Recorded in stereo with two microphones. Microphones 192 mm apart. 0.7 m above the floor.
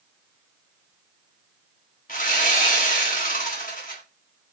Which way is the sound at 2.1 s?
45° left (ahead or behind).